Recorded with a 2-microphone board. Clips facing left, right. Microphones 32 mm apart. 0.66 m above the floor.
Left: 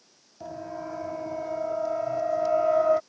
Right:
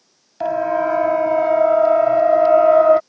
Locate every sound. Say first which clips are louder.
0.4 s a siren: right 18 dB; 80° right; by 3.0 s 35° right (ahead or behind)